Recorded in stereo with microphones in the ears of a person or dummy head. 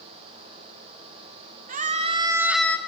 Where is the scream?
45° right (ahead or behind), 0.8 m; by 2.8 s 10° left (ahead or behind), 0.7 m.